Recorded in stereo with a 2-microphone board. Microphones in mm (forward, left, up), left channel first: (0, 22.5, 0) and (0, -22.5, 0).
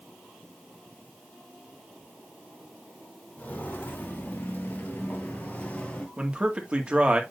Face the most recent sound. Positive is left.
turn(degrees=-25)  # may be behind; listen again after turning